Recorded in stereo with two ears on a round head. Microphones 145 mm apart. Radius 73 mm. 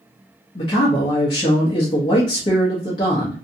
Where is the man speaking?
25° left (ahead or behind), 0.8 m.